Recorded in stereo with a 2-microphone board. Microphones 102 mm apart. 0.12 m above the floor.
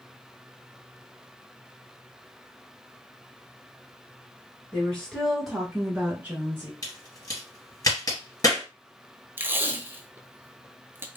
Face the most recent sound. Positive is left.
turn(degrees=-20)  # may be behind; listen again after turning